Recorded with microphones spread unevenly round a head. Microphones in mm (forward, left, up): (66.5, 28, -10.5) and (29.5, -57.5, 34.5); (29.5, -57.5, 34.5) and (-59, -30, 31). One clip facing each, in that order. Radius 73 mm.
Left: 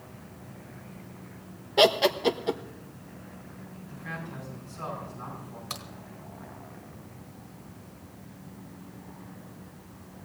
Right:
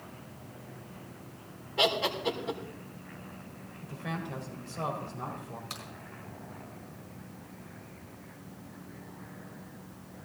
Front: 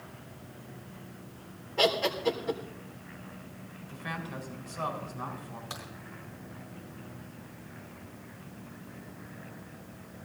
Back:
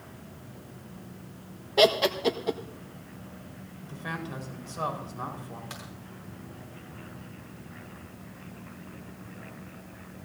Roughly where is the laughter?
Behind left.